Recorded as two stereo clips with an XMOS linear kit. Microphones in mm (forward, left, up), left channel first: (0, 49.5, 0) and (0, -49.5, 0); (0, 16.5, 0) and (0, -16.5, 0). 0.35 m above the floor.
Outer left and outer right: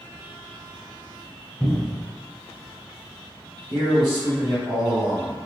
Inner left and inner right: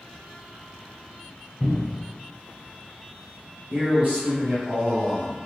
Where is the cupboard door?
5° left (ahead or behind), 0.9 m.